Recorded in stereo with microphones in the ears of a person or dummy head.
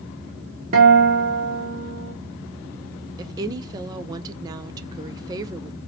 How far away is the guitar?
About 1.5 m.